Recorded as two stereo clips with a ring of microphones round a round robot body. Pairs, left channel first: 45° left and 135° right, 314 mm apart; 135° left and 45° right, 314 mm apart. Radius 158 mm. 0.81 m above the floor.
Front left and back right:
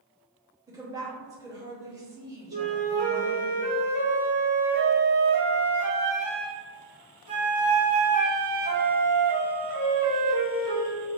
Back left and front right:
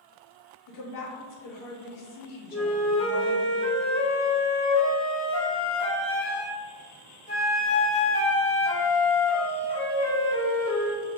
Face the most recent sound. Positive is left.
turn(degrees=-155)